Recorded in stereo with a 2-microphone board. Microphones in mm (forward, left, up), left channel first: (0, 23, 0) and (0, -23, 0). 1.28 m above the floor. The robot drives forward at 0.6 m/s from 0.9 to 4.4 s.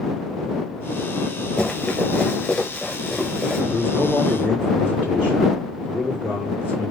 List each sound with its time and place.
1.6 s running footsteps: 20° left (ahead or behind), 1.2 m; by 3.6 s 15° left (ahead or behind), 1.2 m
3.7 s a man speaking: 25° right (ahead or behind), 2 m; by 6.9 s 20° right (ahead or behind), 2.5 m